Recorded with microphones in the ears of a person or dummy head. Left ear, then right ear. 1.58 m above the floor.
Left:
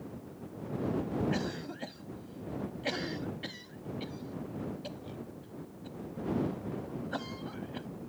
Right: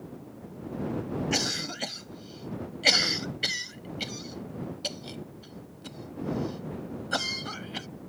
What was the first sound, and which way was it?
A cough, 75° right (ahead or behind).